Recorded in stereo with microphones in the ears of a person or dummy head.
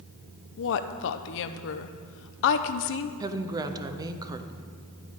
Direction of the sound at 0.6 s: 65° left (ahead or behind).